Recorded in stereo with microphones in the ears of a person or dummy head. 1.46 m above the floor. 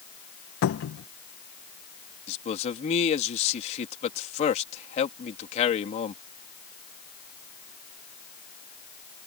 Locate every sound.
0.6 s a cupboard door: 80° left
2.3 s a man speaking: 40° left (ahead or behind)